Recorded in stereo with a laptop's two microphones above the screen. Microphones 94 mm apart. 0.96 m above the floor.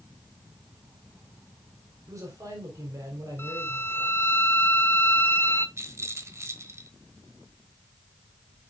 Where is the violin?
30° left (ahead or behind), 1.2 m.